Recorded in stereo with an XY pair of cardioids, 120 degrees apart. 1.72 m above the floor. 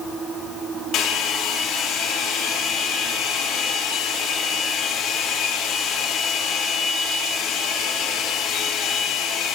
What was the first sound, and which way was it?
A hair dryer, 55° left.